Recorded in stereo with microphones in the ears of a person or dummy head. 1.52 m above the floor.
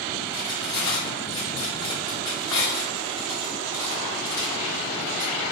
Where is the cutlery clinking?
20° left (ahead or behind), 0.6 m.